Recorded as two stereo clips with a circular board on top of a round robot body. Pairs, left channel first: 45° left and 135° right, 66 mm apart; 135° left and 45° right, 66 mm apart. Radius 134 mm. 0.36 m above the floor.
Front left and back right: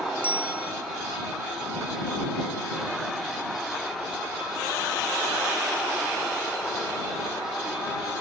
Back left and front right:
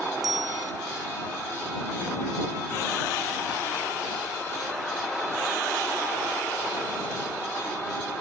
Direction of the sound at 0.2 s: 65° right.